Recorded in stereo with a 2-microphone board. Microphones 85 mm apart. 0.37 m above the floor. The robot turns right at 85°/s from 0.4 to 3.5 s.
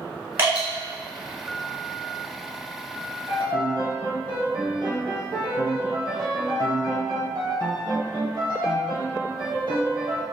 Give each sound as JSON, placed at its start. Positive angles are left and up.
{"t": 0.4, "sound": "dripping", "side_deg": -25, "distance_m": 1.5}
{"t": 3.3, "sound": "a piano", "side_deg": -60, "distance_m": 0.8}